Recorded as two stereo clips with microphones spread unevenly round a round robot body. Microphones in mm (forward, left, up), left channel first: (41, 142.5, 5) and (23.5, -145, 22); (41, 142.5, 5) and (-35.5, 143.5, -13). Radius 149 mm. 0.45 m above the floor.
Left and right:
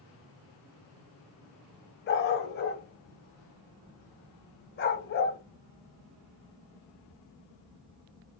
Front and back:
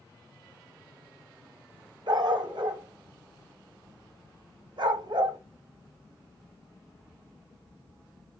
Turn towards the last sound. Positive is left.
turn(degrees=150)